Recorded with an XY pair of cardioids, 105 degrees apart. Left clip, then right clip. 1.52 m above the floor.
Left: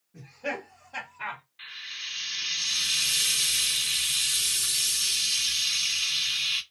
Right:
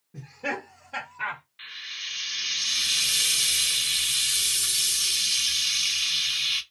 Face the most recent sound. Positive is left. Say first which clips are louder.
# right 1 dB
turn(degrees=-20)